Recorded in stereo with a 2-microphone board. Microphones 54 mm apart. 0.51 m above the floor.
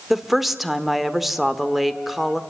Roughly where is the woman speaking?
Centre.